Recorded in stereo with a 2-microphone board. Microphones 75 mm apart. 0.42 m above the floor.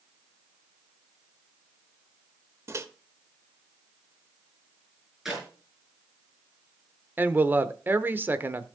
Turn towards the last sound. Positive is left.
turn(degrees=-30)  # may be behind; listen again after turning